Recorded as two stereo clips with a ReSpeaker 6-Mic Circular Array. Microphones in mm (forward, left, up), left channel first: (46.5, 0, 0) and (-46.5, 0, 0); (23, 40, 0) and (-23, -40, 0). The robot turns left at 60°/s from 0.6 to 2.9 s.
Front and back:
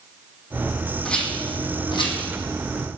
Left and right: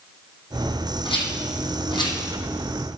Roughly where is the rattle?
Left.